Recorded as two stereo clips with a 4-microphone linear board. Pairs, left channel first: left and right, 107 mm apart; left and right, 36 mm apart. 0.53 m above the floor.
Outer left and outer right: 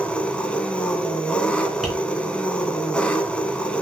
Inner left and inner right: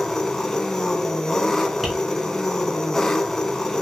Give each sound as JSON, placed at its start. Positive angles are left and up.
{"t": 0.0, "sound": "an engine running", "side_deg": 10, "distance_m": 1.0}
{"t": 1.8, "sound": "tapping", "side_deg": -5, "distance_m": 4.0}